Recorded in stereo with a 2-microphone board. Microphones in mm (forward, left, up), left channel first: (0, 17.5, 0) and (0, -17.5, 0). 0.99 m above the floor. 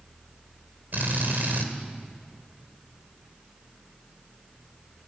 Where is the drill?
65° right (ahead or behind), 2.5 m.